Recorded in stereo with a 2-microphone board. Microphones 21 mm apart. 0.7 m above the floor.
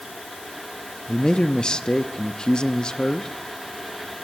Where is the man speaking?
45° left (ahead or behind), 1.0 m.